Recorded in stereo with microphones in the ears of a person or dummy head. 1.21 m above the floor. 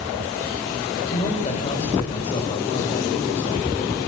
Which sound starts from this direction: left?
A man speaking, at 1.1 s.